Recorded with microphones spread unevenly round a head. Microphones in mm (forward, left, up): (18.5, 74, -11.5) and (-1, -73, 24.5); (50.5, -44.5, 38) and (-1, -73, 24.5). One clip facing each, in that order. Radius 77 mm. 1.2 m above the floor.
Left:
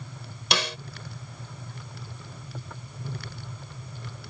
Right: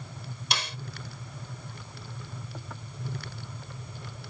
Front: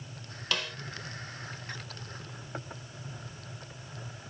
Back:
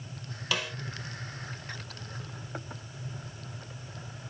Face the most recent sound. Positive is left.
turn(degrees=120)